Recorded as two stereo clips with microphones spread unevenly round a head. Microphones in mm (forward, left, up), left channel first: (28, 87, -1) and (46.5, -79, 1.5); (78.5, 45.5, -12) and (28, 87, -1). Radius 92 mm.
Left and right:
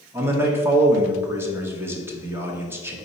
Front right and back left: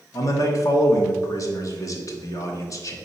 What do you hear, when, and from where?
0.1 s a man speaking: 5° right, 0.8 m